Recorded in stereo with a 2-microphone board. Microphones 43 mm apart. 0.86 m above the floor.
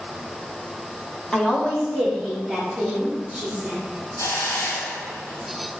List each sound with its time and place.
1.3 s a woman speaking: 10° left (ahead or behind), 1.6 m; by 3.8 s 5° right (ahead or behind), 2.5 m
4.2 s a hiss: 80° left, 3 m